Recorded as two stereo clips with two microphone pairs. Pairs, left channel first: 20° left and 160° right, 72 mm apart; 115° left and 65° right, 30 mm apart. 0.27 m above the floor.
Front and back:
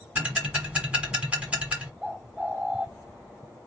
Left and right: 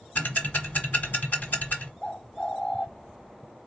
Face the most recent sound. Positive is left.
turn(degrees=135)